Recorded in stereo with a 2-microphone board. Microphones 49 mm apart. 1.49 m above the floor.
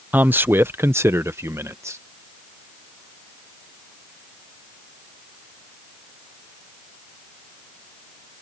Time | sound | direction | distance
0.1 | a man speaking | 35° right (ahead or behind) | ?